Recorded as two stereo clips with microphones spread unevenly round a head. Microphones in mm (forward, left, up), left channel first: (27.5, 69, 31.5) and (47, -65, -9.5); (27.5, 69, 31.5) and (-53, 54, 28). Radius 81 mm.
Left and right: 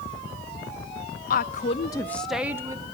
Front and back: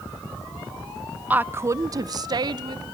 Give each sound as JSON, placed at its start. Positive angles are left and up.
{"t": 1.3, "sound": "a woman speaking", "azimuth_deg": 125, "distance_m": 0.5}